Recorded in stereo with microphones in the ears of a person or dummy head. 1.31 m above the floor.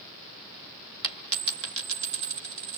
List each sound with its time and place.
1.0 s a dropped coin: 60° right (ahead or behind), 1.7 m